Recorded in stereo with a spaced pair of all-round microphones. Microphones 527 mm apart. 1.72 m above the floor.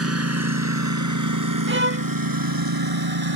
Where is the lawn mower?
25° right (ahead or behind); by 3.4 s 45° right (ahead or behind).